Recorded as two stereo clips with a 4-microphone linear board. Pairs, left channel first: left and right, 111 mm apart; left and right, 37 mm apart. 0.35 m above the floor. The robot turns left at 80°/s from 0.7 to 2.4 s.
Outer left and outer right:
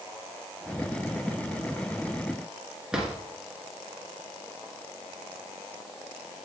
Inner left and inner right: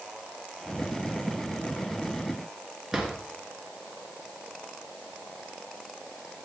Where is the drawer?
5° right (ahead or behind), 2.5 m.